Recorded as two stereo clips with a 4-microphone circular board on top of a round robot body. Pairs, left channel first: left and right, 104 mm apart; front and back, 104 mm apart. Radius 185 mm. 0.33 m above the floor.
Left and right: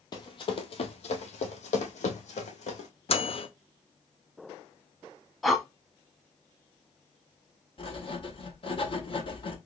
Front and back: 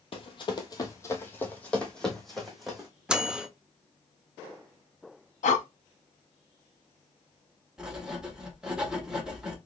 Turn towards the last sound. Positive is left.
turn(degrees=100)